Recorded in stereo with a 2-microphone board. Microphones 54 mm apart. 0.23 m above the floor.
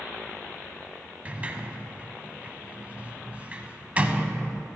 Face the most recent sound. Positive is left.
turn(degrees=-25)  # may be behind; listen again after turning